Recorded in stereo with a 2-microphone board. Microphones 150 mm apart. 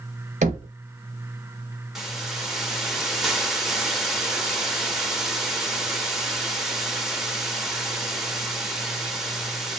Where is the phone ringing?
I don't hear a phone ringing.